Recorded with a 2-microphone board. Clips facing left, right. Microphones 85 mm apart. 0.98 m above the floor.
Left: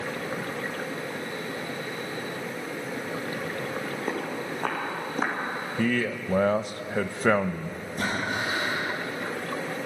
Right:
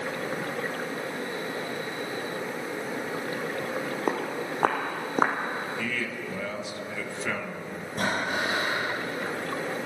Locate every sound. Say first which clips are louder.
4.1 s footsteps: right 3 dB; 75° right (ahead or behind), 3.5 m; by 5.4 s 50° right (ahead or behind), 2.5 m
5.8 s a man speaking: left 6 dB; 50° left (ahead or behind), 0.6 m
8.0 s breathing: right 1 dB; 80° right, 5 m